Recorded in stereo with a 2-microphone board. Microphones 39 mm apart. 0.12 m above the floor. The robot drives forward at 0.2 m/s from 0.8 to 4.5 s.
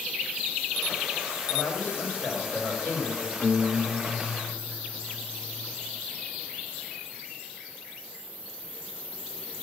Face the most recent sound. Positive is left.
turn(degrees=25)  # may be behind; listen again after turning